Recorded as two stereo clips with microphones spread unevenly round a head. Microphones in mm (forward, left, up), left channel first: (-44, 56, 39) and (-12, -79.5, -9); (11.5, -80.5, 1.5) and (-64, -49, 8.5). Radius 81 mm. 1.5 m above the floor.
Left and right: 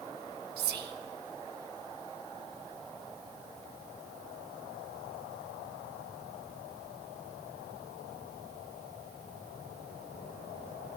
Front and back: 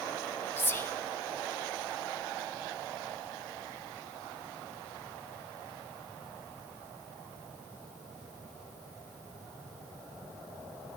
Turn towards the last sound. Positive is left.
turn(degrees=-85)